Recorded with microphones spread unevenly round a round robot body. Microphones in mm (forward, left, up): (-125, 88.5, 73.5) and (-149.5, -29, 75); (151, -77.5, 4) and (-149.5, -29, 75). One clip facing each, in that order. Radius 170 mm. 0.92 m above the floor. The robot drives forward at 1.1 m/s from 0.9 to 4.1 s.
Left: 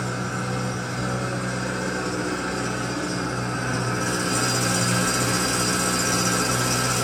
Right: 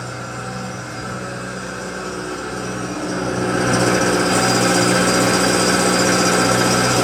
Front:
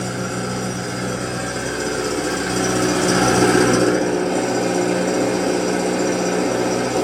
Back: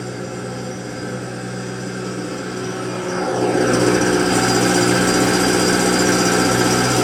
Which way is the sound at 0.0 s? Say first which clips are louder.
Left 1 dB, front 2 dB; 10° right.